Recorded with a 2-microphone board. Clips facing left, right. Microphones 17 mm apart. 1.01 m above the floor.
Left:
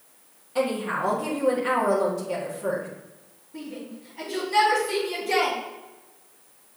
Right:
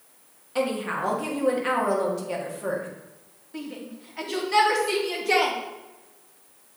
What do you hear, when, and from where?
0.6 s a woman speaking: 20° right (ahead or behind), 1.7 m
3.5 s a shout: 70° right (ahead or behind), 2.5 m